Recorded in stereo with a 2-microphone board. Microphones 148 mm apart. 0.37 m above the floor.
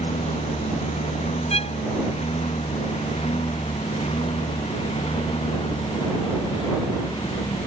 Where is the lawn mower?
45° left (ahead or behind); by 7.7 s 35° left (ahead or behind).